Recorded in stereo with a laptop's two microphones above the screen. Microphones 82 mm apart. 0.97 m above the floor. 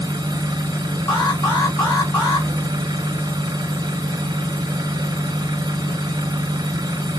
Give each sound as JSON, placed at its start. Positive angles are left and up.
{"t": 0.0, "sound": "an engine running", "side_deg": -60, "distance_m": 1.1}
{"t": 1.1, "sound": "an alarm", "side_deg": 50, "distance_m": 1.8}